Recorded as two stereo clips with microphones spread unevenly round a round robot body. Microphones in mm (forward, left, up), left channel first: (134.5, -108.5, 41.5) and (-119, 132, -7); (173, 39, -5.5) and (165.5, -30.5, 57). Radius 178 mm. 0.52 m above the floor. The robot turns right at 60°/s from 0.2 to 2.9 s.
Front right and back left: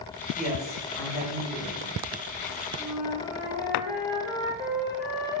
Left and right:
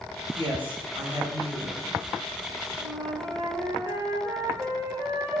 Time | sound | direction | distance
0.3 | a woman speaking | 75° right | 1.6 m
2.8 | a flute | 50° right | 1.0 m